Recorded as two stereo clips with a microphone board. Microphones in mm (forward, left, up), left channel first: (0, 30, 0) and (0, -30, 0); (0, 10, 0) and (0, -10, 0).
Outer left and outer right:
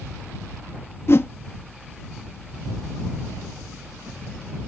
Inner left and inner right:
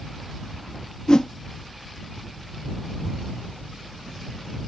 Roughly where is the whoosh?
Left.